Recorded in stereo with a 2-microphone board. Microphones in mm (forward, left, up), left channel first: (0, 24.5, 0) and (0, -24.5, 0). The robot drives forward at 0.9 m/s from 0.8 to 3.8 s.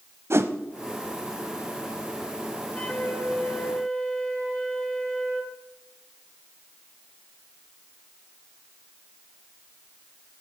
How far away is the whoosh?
About 0.9 m.